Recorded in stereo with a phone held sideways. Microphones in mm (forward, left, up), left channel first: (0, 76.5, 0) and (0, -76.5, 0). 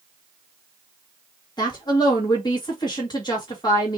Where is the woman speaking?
30° left (ahead or behind), 1.6 m.